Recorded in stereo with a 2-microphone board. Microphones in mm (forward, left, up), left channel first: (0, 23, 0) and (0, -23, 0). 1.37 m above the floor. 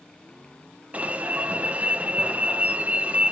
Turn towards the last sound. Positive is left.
turn(degrees=-30)  # may be behind; listen again after turning